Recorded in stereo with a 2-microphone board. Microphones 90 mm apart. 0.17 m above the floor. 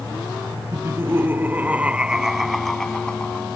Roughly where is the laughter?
Right.